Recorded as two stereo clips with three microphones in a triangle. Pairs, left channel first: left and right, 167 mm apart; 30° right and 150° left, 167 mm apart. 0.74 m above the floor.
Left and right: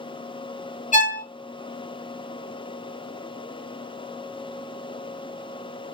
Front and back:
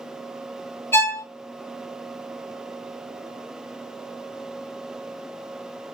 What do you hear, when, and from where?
0.9 s a violin: 45° left, 1.1 m